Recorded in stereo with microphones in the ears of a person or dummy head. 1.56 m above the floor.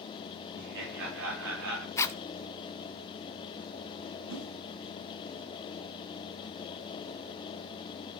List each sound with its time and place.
0.6 s laughter: 60° right (ahead or behind), 4 m; by 1.9 s 75° right (ahead or behind), 4 m
2.0 s a zipper: 15° left (ahead or behind), 0.8 m
4.3 s a whoosh: 70° right (ahead or behind), 10 m